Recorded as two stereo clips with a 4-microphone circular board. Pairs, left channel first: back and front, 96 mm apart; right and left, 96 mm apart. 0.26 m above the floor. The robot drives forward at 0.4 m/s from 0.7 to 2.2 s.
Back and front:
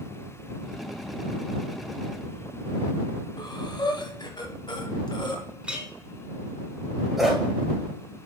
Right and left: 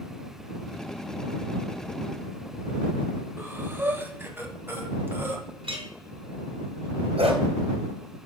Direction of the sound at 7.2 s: 85° left.